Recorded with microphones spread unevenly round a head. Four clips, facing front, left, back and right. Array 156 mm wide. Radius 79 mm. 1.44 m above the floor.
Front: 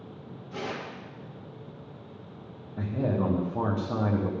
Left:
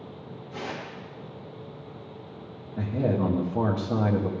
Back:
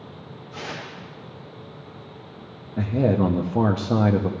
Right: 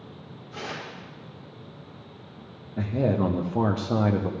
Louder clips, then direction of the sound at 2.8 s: Right 2 dB, back 7 dB; 130° right.